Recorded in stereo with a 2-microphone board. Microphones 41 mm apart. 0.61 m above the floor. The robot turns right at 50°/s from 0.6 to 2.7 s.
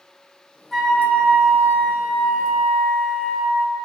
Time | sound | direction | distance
0.7 | a flute | straight ahead | 0.8 m